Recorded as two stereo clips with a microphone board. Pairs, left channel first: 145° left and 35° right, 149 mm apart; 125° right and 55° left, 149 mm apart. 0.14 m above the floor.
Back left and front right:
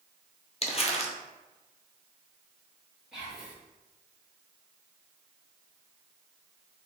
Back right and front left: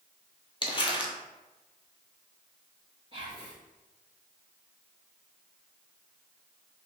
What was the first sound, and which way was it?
Crumpling, 175° right.